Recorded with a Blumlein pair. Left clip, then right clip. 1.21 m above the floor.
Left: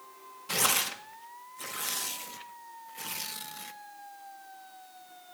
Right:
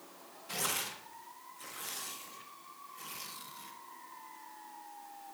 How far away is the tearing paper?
About 1.1 m.